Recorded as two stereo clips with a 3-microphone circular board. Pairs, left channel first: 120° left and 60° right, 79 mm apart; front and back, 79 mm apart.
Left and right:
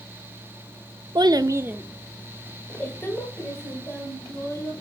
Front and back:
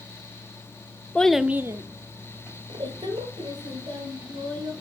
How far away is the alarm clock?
No alarm clock in this recording.